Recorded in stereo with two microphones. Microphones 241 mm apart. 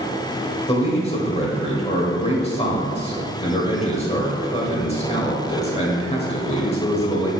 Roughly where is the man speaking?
Left.